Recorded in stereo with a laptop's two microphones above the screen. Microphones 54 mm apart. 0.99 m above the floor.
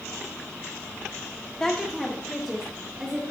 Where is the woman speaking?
10° left (ahead or behind), 0.7 m; by 3.3 s 15° right (ahead or behind), 1.6 m.